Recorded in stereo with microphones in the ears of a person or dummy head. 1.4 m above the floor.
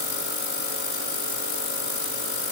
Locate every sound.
Only background noise.